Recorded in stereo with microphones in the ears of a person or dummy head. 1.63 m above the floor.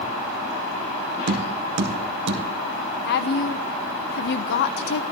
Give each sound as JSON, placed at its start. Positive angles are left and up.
{"t": 1.3, "sound": "tapping", "side_deg": -65, "distance_m": 1.7}
{"t": 3.0, "sound": "a woman speaking", "side_deg": 60, "distance_m": 0.9}